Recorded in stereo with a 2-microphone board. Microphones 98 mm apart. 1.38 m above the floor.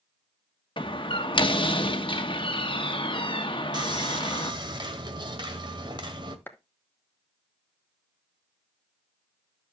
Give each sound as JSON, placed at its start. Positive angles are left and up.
{"t": 0.8, "sound": "a door slam", "side_deg": 50, "distance_m": 1.1}
{"t": 3.7, "sound": "sawing", "side_deg": -50, "distance_m": 1.6}
{"t": 6.5, "sound": "a clap", "side_deg": 20, "distance_m": 1.1}